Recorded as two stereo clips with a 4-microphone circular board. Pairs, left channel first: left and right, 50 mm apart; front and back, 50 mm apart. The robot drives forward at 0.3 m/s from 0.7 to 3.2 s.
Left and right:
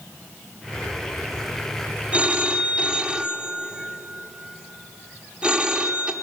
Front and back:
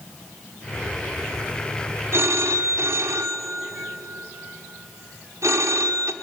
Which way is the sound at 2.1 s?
155° right.